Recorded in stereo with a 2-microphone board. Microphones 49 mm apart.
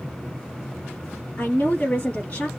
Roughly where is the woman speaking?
Left.